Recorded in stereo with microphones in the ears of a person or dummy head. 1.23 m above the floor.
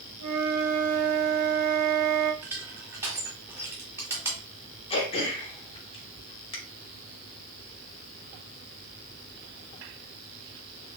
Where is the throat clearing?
30° left (ahead or behind), 1.1 m.